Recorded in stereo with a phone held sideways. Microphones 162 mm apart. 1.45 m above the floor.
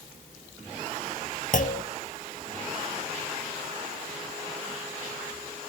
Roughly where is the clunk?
Left.